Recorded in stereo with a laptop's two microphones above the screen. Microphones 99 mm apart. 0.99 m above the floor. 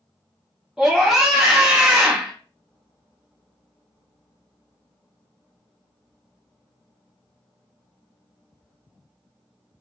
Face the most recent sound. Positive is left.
turn(degrees=-5)  # may be behind; listen again after turning